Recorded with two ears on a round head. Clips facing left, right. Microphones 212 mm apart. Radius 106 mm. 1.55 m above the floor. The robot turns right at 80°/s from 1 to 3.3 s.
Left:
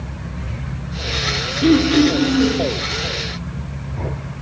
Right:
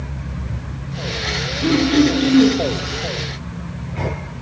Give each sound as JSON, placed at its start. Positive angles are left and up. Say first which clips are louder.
{"t": 1.6, "sound": "throat clearing", "louder": "left 2 dB", "azimuth_deg": 150, "distance_m": 0.7}